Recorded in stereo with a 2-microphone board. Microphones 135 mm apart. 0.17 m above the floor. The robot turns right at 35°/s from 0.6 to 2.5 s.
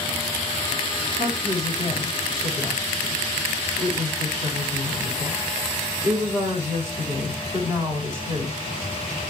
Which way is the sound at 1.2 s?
65° right (ahead or behind).